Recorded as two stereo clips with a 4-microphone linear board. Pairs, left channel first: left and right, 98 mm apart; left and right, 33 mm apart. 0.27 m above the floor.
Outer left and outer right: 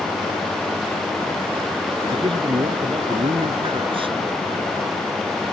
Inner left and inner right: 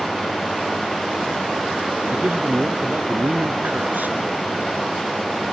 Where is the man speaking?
65° right (ahead or behind).